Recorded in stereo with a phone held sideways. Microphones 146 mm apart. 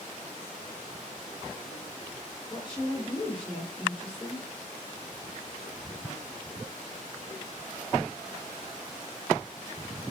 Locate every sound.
2.5 s a woman speaking: 5° left (ahead or behind), 1.4 m